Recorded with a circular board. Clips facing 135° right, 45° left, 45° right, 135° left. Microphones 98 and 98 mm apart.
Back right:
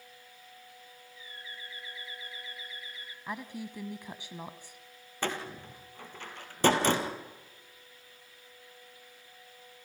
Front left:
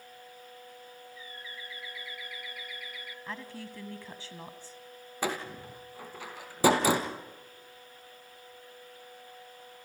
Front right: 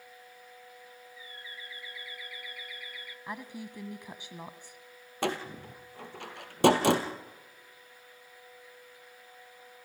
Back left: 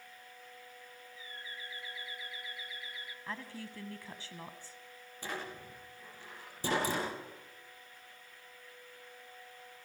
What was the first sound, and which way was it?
A bird, 175° right.